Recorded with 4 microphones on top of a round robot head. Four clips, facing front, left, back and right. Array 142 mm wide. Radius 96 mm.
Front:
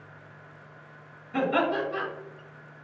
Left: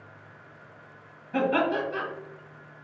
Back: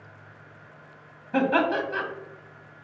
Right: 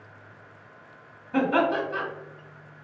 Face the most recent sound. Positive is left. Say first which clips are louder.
# right 2 dB, back 3 dB
turn(degrees=-170)